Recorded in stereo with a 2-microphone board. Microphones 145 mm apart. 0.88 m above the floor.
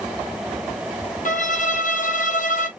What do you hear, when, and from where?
1.2 s a violin: 60° left (ahead or behind), 1.0 m